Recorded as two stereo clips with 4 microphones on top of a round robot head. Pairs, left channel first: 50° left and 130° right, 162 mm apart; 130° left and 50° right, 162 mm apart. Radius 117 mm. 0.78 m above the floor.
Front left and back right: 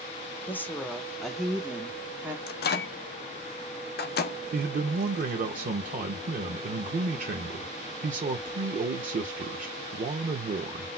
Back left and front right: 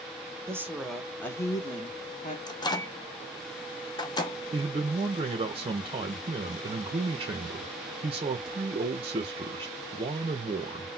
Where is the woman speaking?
5° right, 0.9 m; by 2.4 s 155° left, 1.2 m.